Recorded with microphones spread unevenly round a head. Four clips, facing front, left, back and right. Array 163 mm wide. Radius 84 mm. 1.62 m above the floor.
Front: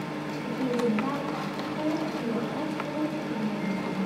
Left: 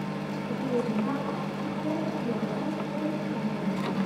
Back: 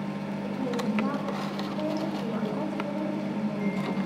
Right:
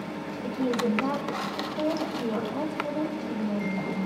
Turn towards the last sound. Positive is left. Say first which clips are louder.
# right 3 dB, front 4 dB
turn(degrees=-100)